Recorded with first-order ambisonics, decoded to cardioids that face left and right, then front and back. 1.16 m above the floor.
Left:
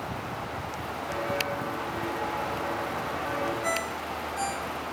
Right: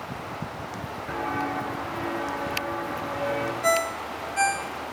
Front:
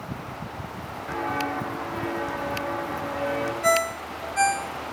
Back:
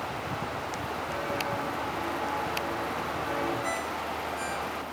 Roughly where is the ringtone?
Ahead right.